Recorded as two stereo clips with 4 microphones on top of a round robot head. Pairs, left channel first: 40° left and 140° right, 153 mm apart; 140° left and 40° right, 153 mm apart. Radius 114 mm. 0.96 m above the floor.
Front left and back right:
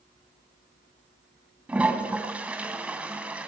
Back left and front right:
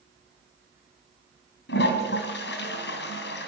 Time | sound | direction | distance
1.7 | a toilet flushing | 135° left | 2.5 m